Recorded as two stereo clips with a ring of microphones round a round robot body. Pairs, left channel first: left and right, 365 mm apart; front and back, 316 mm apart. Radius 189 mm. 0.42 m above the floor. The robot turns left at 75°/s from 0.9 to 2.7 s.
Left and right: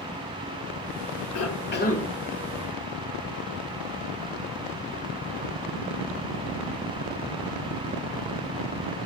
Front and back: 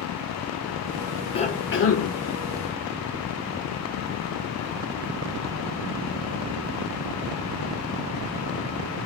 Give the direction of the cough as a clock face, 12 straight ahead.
10 o'clock.